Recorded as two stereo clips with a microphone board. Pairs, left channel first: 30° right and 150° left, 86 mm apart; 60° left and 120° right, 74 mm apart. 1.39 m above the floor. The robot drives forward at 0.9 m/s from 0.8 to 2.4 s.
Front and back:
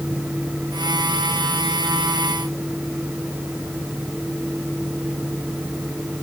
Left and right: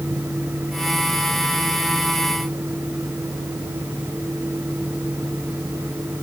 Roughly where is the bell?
No bell in this recording.